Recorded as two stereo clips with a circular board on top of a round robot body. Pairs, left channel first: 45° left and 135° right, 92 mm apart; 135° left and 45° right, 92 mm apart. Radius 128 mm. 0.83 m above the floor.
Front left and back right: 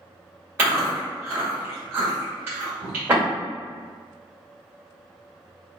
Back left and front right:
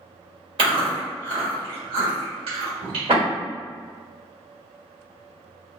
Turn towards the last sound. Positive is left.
turn(degrees=-65)